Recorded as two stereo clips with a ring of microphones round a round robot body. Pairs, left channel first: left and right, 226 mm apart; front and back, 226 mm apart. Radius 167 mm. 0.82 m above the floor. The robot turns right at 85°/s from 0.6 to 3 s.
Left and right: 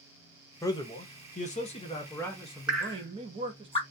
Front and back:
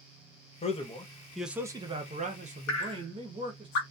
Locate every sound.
0.6 s a man speaking: 25° left, 0.7 m; by 3.7 s 135° right, 0.7 m
2.7 s dripping: 5° right, 0.9 m; by 3.8 s 20° left, 0.9 m